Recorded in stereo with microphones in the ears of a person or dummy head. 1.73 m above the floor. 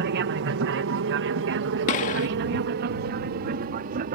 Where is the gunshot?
40° left (ahead or behind).